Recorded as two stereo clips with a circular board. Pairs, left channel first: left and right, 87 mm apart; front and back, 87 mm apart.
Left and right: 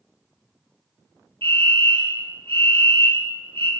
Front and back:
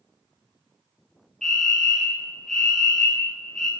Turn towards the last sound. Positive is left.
turn(degrees=-85)